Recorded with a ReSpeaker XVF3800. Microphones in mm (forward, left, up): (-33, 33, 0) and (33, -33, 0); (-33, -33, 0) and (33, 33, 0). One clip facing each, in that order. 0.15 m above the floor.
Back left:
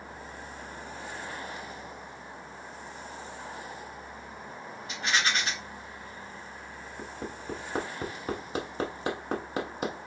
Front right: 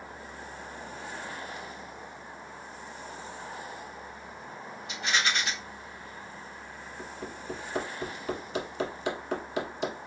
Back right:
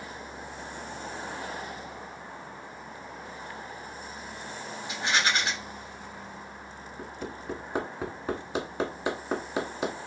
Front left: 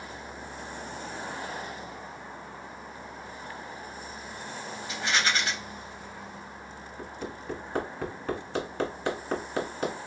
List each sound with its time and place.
4.9 s a rattle: 165° left, 2 m
7.0 s hammering: 155° left, 1.0 m